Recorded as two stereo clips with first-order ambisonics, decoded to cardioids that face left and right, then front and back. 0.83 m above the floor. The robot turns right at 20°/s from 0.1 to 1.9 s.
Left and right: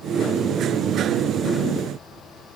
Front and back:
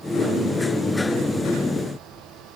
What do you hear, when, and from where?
Only background noise.